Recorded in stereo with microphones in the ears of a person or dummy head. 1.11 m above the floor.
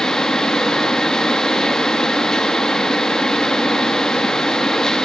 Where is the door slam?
I don't hear a door slam.